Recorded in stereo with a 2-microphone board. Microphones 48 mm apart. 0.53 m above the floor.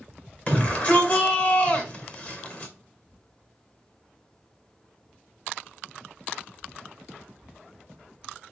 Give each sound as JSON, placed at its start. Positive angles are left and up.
{"t": 0.5, "sound": "a shout", "side_deg": 30, "distance_m": 2.0}